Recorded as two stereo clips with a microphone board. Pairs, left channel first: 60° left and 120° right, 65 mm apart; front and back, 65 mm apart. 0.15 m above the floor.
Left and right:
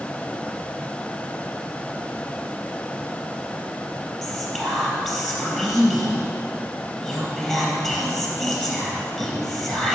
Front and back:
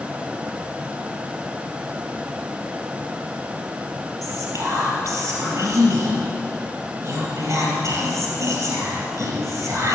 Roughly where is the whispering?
Behind left.